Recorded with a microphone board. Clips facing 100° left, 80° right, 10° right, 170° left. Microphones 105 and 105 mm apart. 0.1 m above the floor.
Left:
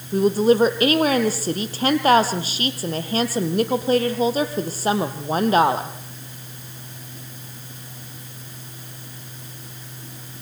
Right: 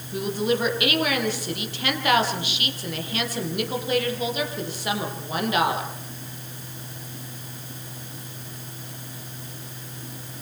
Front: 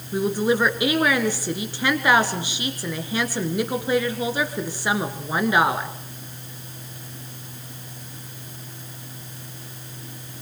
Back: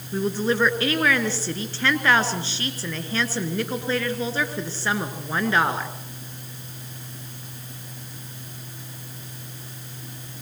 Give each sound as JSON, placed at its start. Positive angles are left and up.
{"t": 0.1, "sound": "a woman speaking", "azimuth_deg": 60, "distance_m": 2.5}